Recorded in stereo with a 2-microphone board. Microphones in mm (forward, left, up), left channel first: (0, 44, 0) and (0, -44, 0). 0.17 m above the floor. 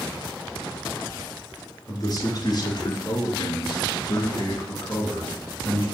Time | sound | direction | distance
1.9 | a man speaking | 45° left (ahead or behind) | 3 m